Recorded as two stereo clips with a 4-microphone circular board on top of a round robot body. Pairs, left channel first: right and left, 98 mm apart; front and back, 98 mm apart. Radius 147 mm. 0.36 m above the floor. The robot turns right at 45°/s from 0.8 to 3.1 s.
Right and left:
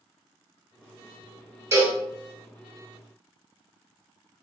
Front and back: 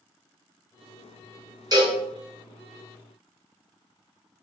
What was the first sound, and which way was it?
A cowbell, 140° left.